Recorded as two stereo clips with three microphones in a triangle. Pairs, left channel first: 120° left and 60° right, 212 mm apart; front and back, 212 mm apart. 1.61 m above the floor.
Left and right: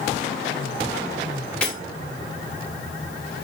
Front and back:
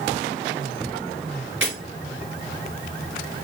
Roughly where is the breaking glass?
Behind right.